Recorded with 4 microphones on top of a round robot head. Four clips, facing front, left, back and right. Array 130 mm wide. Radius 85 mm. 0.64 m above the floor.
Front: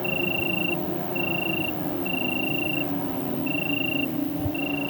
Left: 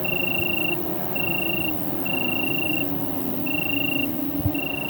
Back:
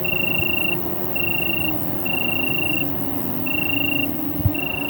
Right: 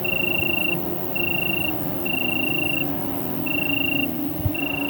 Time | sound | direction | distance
0.0 | an insect | 170° left | ?